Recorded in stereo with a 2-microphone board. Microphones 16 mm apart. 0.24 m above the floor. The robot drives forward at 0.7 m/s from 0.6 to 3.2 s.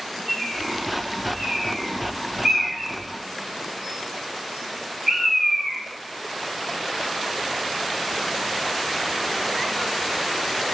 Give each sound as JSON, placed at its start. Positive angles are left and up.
{"t": 0.3, "sound": "a bird", "side_deg": -20, "distance_m": 3.0}